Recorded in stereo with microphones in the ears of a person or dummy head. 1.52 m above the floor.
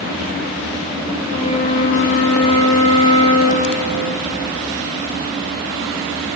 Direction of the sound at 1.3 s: 25° left (ahead or behind).